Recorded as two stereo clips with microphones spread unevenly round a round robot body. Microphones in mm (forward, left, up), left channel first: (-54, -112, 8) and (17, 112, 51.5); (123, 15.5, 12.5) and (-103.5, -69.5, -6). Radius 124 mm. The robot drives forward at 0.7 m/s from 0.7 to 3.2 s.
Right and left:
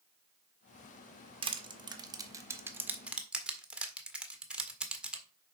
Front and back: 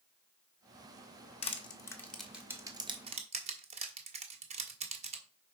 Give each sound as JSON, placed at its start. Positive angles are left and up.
{"t": 1.4, "sound": "crushing", "azimuth_deg": 15, "distance_m": 1.3}